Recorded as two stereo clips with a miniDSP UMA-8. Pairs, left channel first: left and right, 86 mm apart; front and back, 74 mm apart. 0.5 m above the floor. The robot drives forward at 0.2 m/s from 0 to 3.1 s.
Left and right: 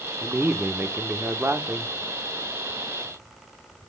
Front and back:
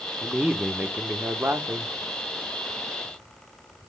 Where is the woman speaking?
115° right, 0.8 m; by 1.9 s 145° right, 0.9 m.